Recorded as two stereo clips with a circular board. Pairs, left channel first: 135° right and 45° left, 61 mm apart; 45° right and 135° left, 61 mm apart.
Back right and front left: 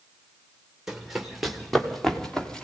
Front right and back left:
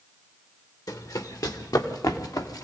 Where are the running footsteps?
40° right, 3 m; by 2.6 s 55° right, 3 m.